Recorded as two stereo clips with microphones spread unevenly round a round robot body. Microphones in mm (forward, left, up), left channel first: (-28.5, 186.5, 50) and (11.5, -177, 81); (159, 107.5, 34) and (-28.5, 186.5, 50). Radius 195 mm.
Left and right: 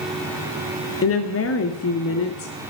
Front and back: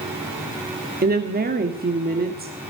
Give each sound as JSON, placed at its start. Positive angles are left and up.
{"t": 1.0, "sound": "a woman speaking", "azimuth_deg": 130, "distance_m": 1.6}